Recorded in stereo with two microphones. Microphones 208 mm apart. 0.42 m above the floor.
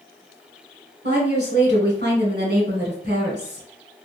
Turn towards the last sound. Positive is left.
turn(degrees=-55)  # may be behind; listen again after turning